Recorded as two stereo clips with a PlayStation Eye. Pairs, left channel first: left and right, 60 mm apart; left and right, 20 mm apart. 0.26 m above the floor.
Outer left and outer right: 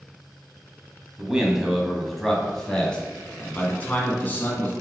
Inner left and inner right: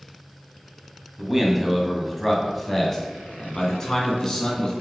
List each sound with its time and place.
1.2 s a man speaking: 15° right (ahead or behind), 1.8 m; by 4.7 s 35° left (ahead or behind), 3 m